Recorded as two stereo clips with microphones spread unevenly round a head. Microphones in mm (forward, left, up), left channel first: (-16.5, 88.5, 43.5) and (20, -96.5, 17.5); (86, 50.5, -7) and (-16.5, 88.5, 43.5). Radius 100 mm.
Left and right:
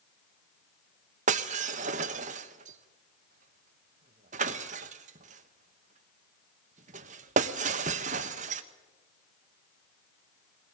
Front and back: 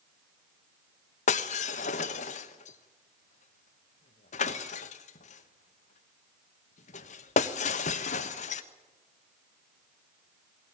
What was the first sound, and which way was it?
Breaking glass, 40° right.